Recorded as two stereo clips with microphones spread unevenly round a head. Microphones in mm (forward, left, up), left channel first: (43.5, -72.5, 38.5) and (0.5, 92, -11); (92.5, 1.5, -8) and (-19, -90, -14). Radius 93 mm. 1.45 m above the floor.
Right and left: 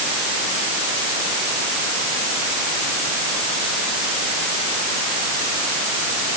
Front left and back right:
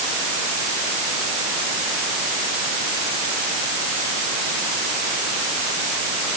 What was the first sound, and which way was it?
Only background noise.